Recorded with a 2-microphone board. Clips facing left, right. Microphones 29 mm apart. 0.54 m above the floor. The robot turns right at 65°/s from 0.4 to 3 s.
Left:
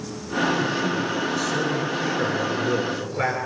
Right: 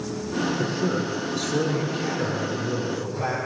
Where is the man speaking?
95° right, 9 m; by 3.4 s 65° left, 9 m.